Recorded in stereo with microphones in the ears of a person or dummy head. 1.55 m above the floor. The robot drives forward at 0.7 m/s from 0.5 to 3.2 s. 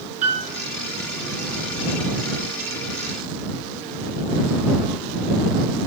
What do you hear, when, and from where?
0.2 s a piano: 40° right (ahead or behind), 3.5 m